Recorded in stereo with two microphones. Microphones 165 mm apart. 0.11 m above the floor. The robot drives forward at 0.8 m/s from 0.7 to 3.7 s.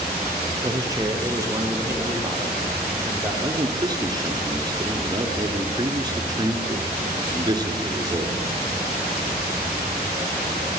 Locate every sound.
0.6 s a man speaking: 20° right (ahead or behind), 2.5 m; by 3.3 s 10° right (ahead or behind), 4.5 m
3.4 s a man speaking: 25° right (ahead or behind), 1.7 m